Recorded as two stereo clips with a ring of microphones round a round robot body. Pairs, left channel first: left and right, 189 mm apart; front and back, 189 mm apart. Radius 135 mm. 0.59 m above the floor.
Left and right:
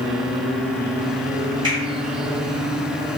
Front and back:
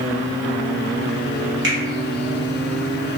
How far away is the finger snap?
About 1.1 m.